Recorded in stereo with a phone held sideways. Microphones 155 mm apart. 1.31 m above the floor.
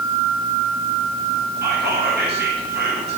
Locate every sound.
1.6 s whispering: 85° right, 9.5 m